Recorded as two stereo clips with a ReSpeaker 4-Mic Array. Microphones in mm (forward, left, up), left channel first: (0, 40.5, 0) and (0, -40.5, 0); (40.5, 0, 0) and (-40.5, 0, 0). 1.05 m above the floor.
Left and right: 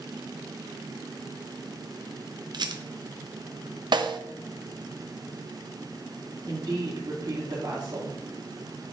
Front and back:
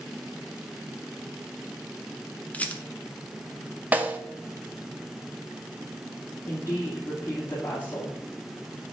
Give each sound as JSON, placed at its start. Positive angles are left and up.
{"t": 2.5, "sound": "a rattle", "azimuth_deg": -70, "distance_m": 0.7}
{"t": 3.9, "sound": "a snare drum", "azimuth_deg": -110, "distance_m": 0.7}
{"t": 6.5, "sound": "a woman speaking", "azimuth_deg": -60, "distance_m": 3.0}